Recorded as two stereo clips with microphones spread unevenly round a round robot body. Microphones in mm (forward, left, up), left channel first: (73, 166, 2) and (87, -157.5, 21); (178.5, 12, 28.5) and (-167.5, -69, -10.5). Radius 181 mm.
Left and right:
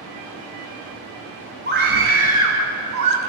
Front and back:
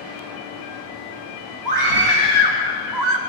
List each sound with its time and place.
1.6 s a scream: 150° right, 4.5 m; by 3.2 s 135° right, 2.5 m